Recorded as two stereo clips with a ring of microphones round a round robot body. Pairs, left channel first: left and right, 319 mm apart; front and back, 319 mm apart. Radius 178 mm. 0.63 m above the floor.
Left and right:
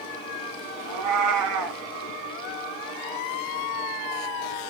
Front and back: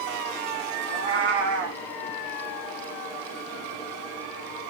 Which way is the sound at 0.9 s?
125° right.